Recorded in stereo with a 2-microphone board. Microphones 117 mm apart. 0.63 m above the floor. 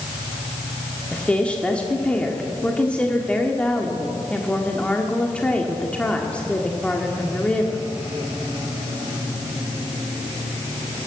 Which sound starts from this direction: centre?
A woman speaking, at 1.1 s.